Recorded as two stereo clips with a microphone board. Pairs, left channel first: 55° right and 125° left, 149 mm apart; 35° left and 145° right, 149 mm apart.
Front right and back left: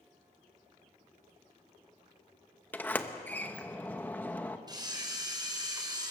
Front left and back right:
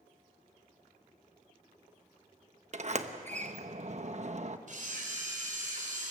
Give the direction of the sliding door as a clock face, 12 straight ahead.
4 o'clock.